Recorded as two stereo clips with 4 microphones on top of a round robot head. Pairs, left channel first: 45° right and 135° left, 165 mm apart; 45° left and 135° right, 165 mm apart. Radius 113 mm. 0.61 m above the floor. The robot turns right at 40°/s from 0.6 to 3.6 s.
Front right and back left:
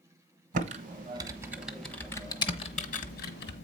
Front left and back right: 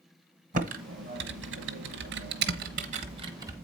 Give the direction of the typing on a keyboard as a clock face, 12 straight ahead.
6 o'clock.